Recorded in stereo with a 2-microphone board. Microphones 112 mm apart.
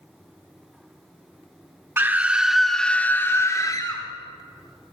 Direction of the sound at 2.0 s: 20° right (ahead or behind).